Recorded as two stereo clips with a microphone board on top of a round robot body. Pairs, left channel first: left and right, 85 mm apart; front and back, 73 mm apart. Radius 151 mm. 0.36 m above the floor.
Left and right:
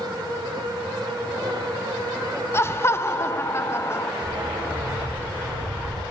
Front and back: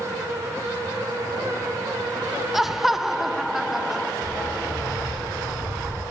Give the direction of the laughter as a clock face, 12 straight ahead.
9 o'clock.